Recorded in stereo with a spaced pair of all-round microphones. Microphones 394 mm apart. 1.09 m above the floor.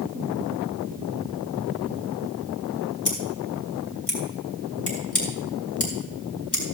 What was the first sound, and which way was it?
Scissors, 65° left (ahead or behind).